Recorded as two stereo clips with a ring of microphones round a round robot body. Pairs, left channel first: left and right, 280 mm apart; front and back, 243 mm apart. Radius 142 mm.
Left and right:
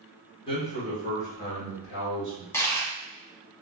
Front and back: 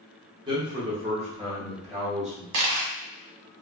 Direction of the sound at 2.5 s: 170° left.